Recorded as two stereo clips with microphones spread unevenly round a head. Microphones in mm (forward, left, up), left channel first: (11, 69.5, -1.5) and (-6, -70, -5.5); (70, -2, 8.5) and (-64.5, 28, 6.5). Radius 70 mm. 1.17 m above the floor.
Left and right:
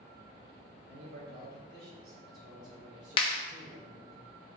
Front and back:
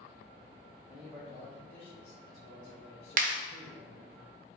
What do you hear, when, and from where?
0.9 s a man speaking: 110° right, 1.6 m; by 4.2 s 40° right, 1.7 m
3.2 s a clap: 140° left, 0.9 m